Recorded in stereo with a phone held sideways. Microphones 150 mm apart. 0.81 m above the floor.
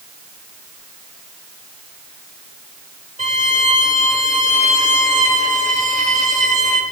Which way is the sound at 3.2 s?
55° right (ahead or behind).